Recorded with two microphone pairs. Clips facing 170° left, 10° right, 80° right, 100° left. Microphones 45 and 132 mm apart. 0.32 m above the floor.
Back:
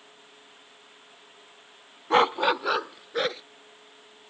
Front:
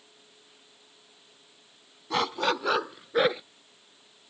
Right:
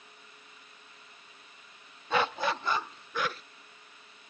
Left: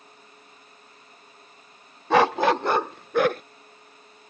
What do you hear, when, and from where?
2.1 s a dog barking: 120° left; by 3.4 s 65° left